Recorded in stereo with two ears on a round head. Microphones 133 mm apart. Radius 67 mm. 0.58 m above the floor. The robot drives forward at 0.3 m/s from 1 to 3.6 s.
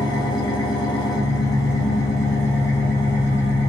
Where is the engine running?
25° left (ahead or behind), 0.8 m; by 3.7 s 15° left (ahead or behind), 1.5 m.